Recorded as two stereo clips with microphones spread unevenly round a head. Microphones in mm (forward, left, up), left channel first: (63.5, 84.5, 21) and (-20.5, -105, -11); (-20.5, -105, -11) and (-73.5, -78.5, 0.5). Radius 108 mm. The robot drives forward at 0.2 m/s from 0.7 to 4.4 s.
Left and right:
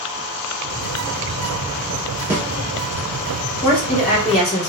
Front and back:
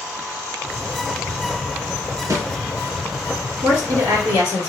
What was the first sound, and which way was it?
A snare drum, 160° left.